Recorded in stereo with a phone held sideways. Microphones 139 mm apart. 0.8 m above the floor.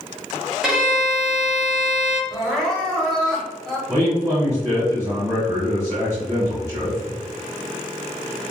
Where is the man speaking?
5° right (ahead or behind), 1.3 m.